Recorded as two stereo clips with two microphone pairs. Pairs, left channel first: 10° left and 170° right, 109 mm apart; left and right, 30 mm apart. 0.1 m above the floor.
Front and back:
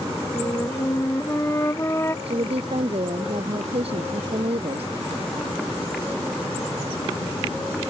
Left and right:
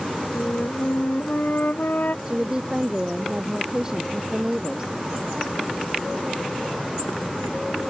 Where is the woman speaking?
155° right.